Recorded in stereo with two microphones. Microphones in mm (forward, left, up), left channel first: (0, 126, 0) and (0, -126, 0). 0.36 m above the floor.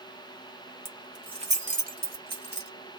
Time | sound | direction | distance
0.8 | keys jangling | 10° right (ahead or behind) | 1.0 m